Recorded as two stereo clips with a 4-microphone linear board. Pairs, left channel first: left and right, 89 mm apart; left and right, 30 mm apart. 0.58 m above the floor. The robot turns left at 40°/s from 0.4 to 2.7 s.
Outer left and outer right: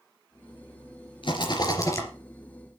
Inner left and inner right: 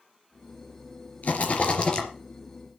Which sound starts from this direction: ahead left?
A rattle, at 1.2 s.